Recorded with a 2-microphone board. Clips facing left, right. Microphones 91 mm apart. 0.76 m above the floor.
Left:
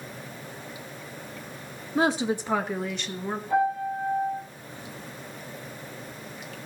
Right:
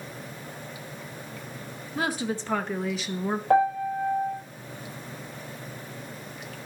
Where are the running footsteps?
No running footsteps in this recording.